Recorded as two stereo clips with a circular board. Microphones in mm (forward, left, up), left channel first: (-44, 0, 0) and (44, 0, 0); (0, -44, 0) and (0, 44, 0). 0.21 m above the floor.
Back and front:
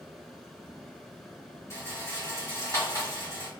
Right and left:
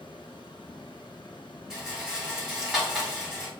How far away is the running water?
About 1.1 m.